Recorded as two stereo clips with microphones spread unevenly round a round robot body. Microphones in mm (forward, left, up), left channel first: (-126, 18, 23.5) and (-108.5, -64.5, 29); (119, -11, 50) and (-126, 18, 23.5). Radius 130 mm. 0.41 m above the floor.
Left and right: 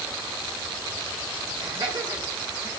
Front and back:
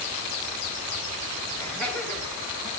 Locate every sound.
1.6 s laughter: 90° right, 4.5 m; by 2.7 s 100° right, 5.5 m